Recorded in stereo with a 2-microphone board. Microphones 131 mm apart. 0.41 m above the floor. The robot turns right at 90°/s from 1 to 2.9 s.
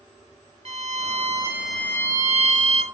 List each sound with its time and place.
0.7 s a violin: 65° right, 1.6 m; by 2.8 s 100° left, 1.6 m